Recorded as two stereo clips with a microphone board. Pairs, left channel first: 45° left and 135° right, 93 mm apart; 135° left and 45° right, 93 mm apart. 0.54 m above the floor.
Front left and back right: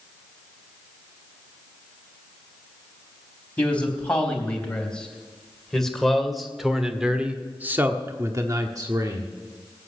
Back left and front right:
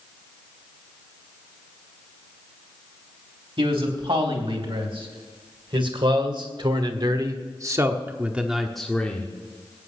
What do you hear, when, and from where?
3.6 s a man speaking: 30° right, 4 m; by 9.3 s 160° right, 1.5 m